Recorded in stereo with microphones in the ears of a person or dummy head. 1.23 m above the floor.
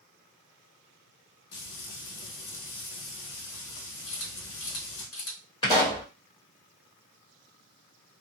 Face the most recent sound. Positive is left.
turn(degrees=25)  # may be behind; listen again after turning